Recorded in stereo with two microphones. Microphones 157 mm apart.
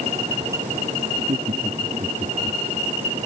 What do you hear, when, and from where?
1.1 s laughter: 50° right (ahead or behind); by 2.6 s 40° right (ahead or behind)